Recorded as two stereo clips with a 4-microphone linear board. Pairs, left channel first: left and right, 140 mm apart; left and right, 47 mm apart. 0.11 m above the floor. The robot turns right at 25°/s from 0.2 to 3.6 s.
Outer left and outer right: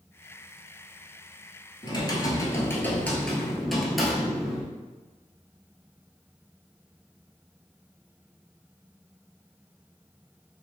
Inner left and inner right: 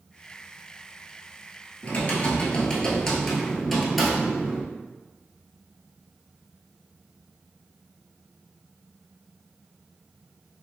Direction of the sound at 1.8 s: 135° left.